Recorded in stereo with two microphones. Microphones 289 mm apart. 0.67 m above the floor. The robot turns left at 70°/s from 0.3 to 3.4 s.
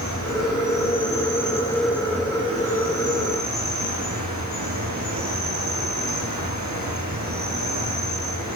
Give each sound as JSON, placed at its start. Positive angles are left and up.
{"t": 0.0, "sound": "an insect", "azimuth_deg": 110, "distance_m": 7.5}